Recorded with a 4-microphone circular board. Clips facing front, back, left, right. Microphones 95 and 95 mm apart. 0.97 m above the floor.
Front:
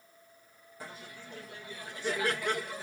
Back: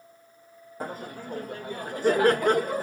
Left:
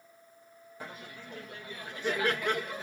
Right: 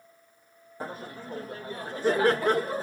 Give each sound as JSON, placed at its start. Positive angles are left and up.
{"t": 0.8, "sound": "laughter", "azimuth_deg": -140}